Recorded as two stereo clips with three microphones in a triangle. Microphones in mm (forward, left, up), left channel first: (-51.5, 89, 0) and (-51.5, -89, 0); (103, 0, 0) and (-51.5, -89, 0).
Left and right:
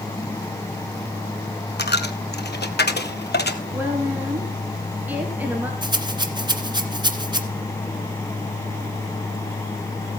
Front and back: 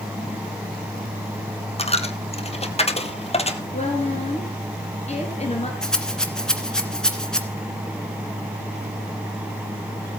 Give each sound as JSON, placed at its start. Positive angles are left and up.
{"t": 1.8, "sound": "a dropped coin", "azimuth_deg": 80, "distance_m": 1.1}
{"t": 3.7, "sound": "a woman speaking", "azimuth_deg": -10, "distance_m": 2.5}
{"t": 5.8, "sound": "a rattle", "azimuth_deg": -55, "distance_m": 1.7}